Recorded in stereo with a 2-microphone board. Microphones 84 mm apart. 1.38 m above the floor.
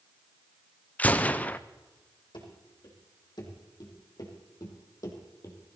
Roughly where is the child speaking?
No child speaking in this recording.